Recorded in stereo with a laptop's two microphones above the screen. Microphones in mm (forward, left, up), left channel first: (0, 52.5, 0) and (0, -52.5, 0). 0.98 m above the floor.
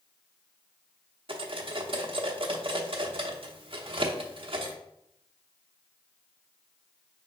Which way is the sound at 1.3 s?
60° right (ahead or behind).